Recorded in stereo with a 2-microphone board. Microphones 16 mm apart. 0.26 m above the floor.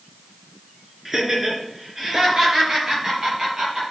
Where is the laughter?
30° right (ahead or behind), 3.5 m.